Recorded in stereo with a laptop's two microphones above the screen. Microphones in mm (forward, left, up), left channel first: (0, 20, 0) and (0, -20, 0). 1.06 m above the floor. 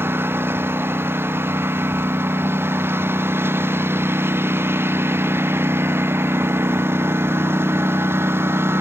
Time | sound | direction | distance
0.0 | a lawn mower | 70° right (ahead or behind) | ?